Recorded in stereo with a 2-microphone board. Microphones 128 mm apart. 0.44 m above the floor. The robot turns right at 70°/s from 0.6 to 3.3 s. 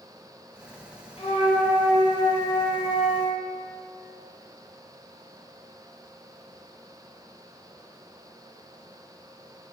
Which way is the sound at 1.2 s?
65° left.